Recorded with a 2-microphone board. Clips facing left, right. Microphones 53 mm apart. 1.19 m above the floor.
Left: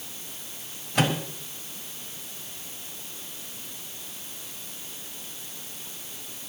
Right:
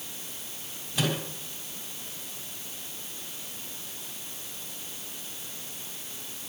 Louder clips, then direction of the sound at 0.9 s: Left 5 dB; 70° left (ahead or behind).